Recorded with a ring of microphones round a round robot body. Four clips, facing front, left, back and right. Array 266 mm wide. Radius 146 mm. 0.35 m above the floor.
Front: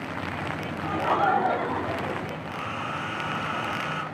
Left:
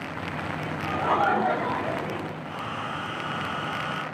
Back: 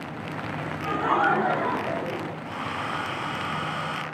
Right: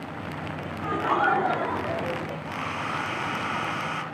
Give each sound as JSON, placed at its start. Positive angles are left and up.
{"t": 0.8, "sound": "laughter", "azimuth_deg": -155, "distance_m": 6.0}
{"t": 2.4, "sound": "a hair dryer", "azimuth_deg": -130, "distance_m": 3.0}